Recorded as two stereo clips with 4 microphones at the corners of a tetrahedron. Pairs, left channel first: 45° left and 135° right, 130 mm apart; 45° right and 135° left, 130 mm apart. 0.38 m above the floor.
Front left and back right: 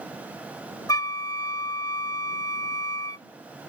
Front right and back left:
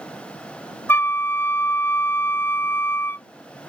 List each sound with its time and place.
0.9 s a flute: 10° left